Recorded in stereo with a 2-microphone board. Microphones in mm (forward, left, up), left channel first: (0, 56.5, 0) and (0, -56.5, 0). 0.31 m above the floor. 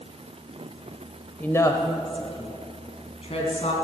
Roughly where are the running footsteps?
I don't hear running footsteps.